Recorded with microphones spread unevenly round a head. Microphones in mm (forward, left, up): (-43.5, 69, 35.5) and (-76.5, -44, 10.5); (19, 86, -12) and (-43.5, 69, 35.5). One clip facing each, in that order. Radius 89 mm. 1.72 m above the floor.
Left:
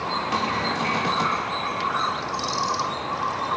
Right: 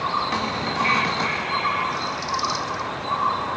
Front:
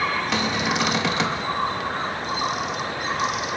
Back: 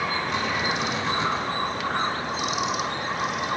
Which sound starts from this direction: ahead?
A cupboard door, at 0.3 s.